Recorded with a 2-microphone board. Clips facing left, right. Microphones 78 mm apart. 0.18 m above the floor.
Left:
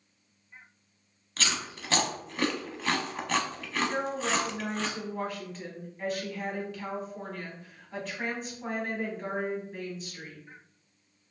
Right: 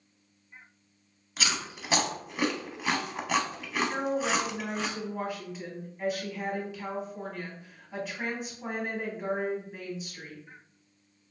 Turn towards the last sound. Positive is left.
turn(degrees=-5)  # may be behind; listen again after turning